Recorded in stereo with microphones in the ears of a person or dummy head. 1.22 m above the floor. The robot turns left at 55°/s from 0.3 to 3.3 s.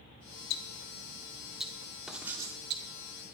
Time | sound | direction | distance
0.5 | ticking | 55° left (ahead or behind) | 2 m
2.1 | writing | centre (ahead or behind) | 3 m